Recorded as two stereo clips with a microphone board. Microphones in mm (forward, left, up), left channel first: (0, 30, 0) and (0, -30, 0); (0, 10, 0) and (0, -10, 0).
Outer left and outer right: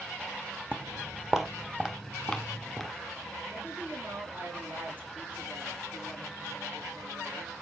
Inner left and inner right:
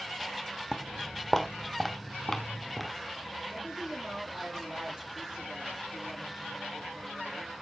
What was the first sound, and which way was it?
Footsteps, 30° right (ahead or behind).